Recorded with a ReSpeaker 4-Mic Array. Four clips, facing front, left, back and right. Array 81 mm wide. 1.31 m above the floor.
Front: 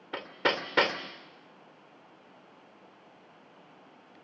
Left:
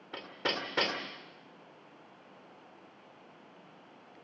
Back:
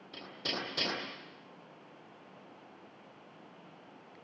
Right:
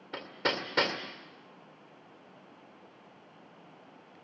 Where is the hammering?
5° right, 2 m.